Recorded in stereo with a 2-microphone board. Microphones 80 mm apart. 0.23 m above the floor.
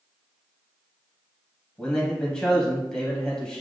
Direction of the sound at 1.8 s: 5° left (ahead or behind).